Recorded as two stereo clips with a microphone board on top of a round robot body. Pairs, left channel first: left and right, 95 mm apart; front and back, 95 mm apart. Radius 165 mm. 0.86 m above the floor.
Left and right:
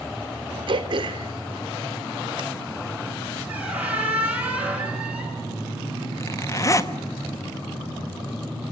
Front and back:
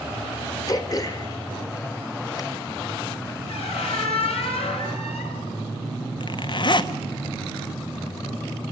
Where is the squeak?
15° right, 8 m.